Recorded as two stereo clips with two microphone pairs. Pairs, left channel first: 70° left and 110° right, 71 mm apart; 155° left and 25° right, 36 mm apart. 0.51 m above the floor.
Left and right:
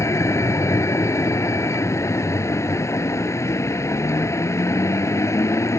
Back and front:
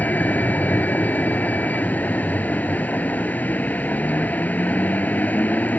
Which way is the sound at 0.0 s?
115° left.